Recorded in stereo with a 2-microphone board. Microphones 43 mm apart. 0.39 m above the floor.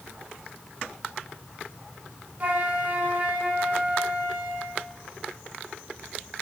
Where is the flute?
30° right (ahead or behind), 0.7 m.